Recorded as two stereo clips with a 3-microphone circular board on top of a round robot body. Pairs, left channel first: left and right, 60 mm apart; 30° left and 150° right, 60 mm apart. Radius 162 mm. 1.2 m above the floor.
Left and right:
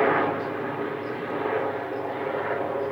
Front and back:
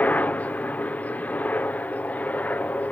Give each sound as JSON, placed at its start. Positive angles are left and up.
{"t": 0.0, "sound": "a helicopter", "azimuth_deg": -5}